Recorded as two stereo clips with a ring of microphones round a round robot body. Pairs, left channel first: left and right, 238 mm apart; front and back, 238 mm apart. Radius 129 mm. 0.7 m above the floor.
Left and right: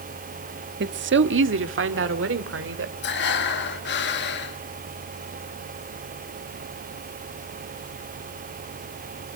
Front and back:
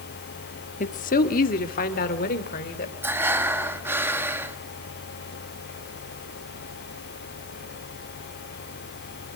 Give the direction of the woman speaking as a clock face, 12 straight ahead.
2 o'clock.